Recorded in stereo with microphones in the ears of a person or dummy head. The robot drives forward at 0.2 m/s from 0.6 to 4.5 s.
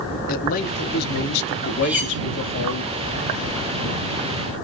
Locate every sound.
0.3 s a man speaking: 45° left (ahead or behind), 0.8 m; by 2.8 s 60° left (ahead or behind), 0.7 m
1.8 s cutlery clinking: 10° right (ahead or behind), 1.1 m